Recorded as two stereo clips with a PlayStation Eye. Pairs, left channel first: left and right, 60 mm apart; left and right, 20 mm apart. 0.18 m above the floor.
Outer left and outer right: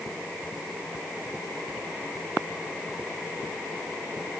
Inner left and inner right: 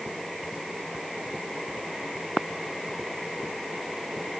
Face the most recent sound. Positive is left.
No sound to turn to.